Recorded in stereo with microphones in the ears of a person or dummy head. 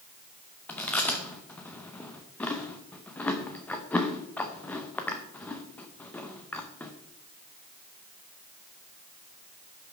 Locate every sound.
0.7 s chewing: centre (ahead or behind), 0.6 m